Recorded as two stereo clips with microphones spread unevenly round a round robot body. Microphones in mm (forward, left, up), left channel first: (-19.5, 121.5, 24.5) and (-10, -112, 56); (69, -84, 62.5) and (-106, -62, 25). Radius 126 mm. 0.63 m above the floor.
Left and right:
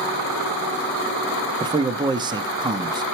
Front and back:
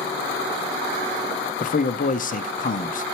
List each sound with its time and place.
1.6 s a man speaking: 20° right, 0.6 m